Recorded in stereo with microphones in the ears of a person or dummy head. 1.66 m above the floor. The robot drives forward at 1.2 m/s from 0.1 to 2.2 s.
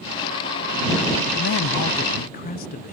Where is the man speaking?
60° left (ahead or behind); by 2.9 s 40° left (ahead or behind).